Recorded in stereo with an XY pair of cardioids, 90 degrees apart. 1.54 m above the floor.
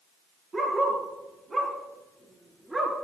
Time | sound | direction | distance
0.5 | a dog barking | 40° right | 9 m